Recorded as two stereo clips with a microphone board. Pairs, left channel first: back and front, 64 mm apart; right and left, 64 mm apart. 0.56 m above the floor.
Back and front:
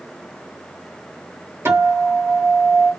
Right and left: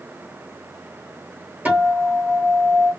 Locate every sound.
1.6 s a guitar: 30° left, 1.8 m